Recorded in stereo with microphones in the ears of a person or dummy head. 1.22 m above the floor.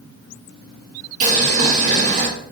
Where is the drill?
I don't hear a drill.